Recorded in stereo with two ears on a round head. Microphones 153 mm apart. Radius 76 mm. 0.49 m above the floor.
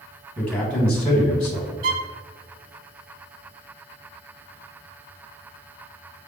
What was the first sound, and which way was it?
A man speaking, 5° left (ahead or behind).